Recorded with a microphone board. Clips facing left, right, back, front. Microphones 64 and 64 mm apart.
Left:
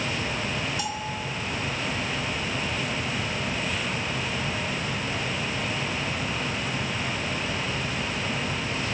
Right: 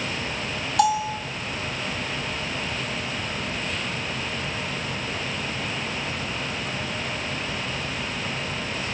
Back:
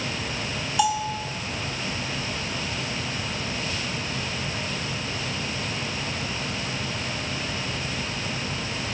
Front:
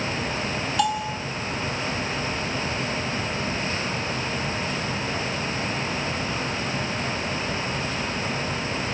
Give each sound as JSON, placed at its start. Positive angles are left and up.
{"t": 0.8, "sound": "a bell", "azimuth_deg": -95, "distance_m": 0.8}